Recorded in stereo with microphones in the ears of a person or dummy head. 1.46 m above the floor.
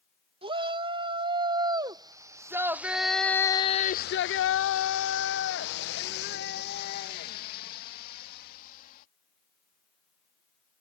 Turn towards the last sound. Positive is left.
turn(degrees=50)  # may be behind; listen again after turning